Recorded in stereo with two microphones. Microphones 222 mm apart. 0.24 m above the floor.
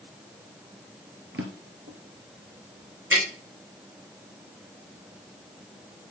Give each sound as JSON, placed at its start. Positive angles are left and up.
{"t": 1.3, "sound": "a drawer", "side_deg": -60, "distance_m": 1.7}
{"t": 3.1, "sound": "tapping", "side_deg": -60, "distance_m": 5.0}